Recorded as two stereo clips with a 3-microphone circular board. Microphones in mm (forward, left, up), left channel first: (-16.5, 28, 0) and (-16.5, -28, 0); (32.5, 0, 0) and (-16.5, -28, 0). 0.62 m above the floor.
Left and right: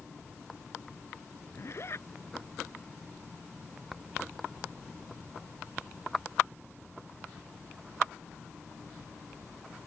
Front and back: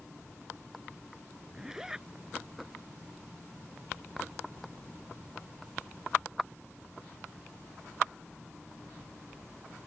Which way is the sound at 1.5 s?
130° left.